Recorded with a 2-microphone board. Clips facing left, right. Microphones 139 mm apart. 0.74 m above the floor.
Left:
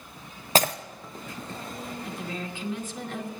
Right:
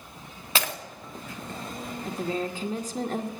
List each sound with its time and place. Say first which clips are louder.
0.6 s breaking glass: left 7 dB; 40° left (ahead or behind), 0.6 m
2.0 s a woman speaking: right 10 dB; 40° right (ahead or behind), 1.0 m